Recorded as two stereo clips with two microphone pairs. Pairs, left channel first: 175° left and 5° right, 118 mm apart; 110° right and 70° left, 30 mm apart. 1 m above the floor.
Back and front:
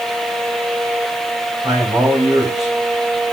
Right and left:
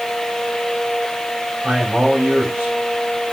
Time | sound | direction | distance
1.6 | a man speaking | 50° left | 4 m